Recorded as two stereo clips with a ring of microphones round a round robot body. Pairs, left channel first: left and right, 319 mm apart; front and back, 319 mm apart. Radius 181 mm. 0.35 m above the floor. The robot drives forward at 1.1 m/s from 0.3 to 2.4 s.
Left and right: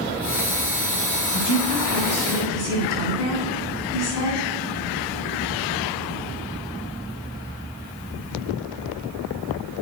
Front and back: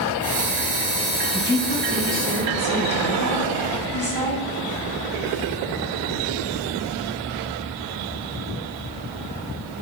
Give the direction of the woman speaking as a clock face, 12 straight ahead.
8 o'clock.